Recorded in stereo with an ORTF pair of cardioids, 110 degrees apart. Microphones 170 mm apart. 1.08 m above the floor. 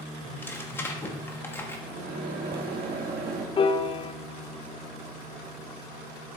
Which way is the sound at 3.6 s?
30° left.